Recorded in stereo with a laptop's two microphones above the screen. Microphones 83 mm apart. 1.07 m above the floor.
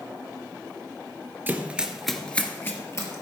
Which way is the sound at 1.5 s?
25° right (ahead or behind).